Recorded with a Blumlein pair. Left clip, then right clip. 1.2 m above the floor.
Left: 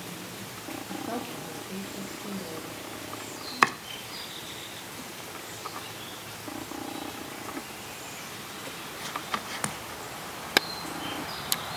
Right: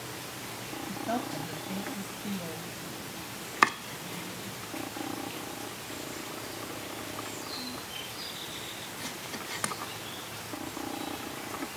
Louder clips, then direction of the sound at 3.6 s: Left 1 dB; 5° left.